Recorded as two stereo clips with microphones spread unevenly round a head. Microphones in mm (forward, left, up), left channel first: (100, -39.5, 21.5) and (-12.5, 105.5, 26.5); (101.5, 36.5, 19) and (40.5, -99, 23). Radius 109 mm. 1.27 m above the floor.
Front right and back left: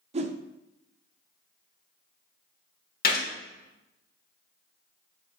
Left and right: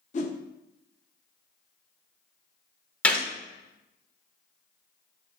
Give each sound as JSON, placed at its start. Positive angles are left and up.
{"t": 0.1, "sound": "a whoosh", "azimuth_deg": 90, "distance_m": 0.6}
{"t": 3.0, "sound": "a gunshot", "azimuth_deg": -15, "distance_m": 1.5}